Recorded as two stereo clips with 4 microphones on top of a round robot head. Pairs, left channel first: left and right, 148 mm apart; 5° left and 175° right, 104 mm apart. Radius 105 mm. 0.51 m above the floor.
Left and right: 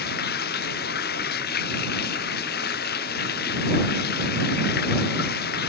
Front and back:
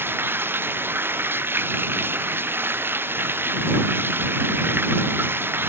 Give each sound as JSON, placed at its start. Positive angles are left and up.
{"t": 0.0, "sound": "running water", "azimuth_deg": 115}